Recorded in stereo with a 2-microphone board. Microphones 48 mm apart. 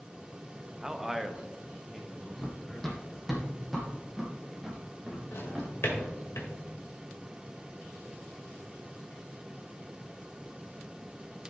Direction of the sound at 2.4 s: 5° left (ahead or behind).